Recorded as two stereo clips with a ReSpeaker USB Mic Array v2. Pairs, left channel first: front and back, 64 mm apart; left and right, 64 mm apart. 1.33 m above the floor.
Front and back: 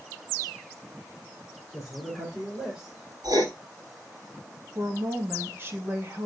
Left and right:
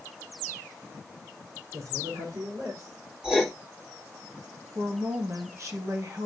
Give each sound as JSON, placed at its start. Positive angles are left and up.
{"t": 1.7, "sound": "a man speaking", "azimuth_deg": -90, "distance_m": 4.0}
{"t": 3.2, "sound": "writing", "azimuth_deg": -170, "distance_m": 2.5}
{"t": 4.8, "sound": "a woman speaking", "azimuth_deg": -130, "distance_m": 1.7}